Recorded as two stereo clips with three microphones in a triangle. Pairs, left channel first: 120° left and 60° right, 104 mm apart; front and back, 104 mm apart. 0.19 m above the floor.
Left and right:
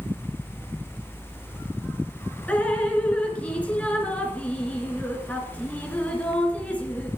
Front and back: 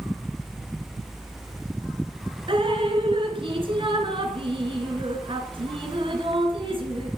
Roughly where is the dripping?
Behind.